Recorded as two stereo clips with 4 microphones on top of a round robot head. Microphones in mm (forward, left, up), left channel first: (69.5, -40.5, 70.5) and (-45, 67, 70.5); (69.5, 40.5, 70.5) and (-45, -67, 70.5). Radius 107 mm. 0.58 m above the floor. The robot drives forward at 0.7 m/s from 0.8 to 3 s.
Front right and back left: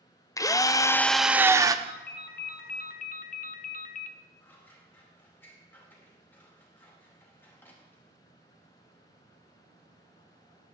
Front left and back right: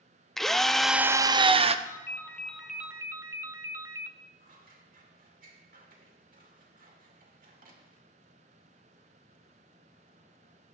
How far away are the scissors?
About 2.5 m.